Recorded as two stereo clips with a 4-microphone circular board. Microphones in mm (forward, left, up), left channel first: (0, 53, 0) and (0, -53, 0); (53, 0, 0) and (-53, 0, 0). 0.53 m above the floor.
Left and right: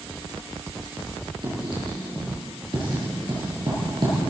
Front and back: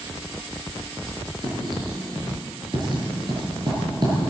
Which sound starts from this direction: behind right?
Writing, at 1.4 s.